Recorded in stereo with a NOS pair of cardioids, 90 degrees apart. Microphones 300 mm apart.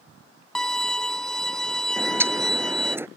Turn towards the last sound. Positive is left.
turn(degrees=-10)